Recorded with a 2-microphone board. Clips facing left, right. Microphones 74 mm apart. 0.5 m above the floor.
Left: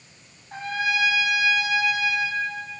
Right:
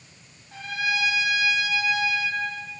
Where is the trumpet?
40° left (ahead or behind), 4 m.